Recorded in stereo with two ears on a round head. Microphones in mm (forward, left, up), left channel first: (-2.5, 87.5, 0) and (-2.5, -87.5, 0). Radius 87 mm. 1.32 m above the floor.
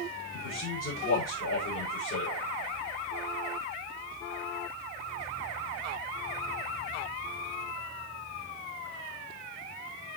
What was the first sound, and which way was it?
A man speaking, 70° left (ahead or behind).